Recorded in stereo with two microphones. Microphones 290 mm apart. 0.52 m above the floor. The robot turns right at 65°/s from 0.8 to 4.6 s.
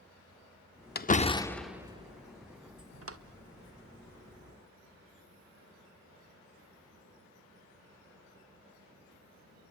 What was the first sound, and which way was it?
A door slam, 35° left (ahead or behind).